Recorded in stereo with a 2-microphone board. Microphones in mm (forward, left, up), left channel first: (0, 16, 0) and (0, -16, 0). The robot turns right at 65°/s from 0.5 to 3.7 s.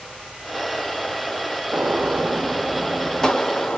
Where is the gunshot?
80° right, 0.9 m; by 3.8 s 50° left, 0.9 m.